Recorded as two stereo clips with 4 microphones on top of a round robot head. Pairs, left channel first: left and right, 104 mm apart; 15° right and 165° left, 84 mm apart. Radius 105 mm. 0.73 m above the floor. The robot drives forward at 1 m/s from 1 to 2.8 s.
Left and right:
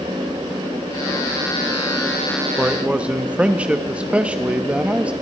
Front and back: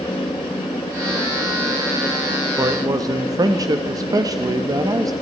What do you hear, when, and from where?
2.6 s a man speaking: 160° right, 0.9 m; by 5.1 s 165° right, 1.1 m